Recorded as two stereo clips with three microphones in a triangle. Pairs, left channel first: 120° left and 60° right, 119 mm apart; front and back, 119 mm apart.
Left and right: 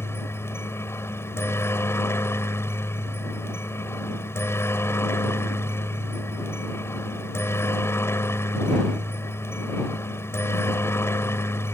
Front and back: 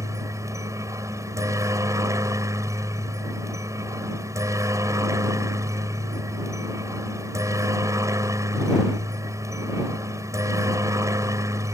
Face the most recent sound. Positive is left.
turn(degrees=160)